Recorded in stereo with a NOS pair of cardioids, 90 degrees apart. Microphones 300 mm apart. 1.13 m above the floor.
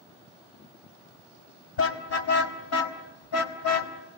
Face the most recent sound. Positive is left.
turn(degrees=70)